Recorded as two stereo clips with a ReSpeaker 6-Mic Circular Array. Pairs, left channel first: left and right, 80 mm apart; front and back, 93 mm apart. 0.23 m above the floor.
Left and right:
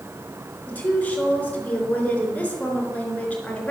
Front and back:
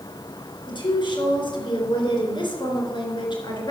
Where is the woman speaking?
20° left, 3.5 m.